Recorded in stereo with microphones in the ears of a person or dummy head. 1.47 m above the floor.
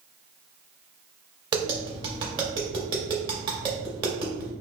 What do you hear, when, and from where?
1.5 s tapping: 25° right (ahead or behind), 2 m